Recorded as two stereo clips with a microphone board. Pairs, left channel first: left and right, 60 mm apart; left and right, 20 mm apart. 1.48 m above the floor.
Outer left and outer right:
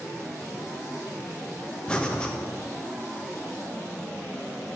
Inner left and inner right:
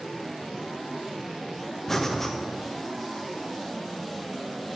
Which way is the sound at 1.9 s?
15° left (ahead or behind).